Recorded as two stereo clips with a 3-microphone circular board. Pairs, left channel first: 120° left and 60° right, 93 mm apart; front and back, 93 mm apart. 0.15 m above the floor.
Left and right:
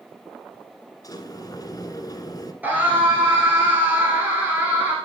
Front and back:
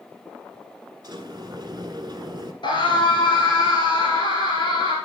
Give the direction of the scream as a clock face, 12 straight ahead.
12 o'clock.